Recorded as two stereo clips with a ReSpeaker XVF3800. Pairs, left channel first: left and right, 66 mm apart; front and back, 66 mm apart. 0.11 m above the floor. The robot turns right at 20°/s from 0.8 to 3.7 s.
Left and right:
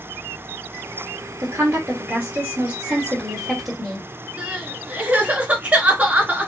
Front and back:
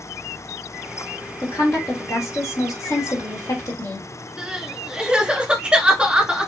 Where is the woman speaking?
45° right, 2.5 m; by 4.1 s straight ahead, 2.5 m.